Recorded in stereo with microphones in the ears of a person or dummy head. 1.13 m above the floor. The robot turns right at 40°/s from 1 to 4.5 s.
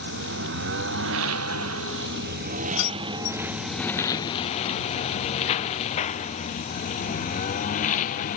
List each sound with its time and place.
0.0 s a lawn mower: 65° right (ahead or behind); by 8.4 s 40° left (ahead or behind)
2.8 s keys jangling: 80° left; by 3.4 s 55° left (ahead or behind)